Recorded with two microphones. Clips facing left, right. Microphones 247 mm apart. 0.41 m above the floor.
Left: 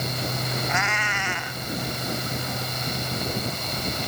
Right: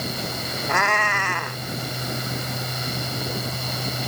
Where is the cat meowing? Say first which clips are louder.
Right 4 dB; 60° right (ahead or behind).